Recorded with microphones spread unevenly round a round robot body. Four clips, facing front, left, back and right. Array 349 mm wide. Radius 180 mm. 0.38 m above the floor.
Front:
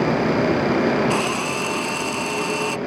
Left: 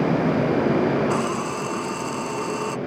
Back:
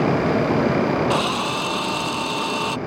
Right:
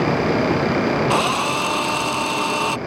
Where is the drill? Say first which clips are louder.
Right 4 dB, back 1 dB; 90° right.